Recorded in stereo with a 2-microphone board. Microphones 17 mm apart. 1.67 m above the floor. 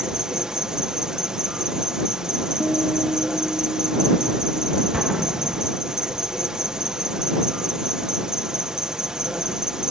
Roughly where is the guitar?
Centre.